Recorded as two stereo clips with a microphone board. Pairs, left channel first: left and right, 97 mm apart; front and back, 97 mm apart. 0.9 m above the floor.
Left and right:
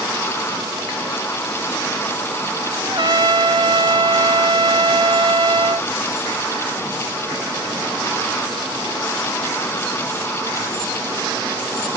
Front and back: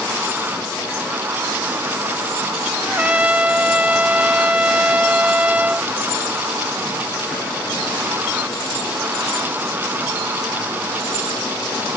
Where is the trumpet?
110° right.